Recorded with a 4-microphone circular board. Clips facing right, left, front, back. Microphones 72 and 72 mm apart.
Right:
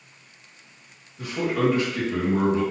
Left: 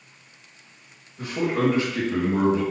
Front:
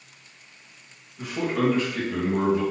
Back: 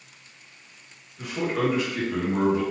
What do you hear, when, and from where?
1.2 s a man speaking: 80° left, 1.9 m; by 2.6 s straight behind, 1.5 m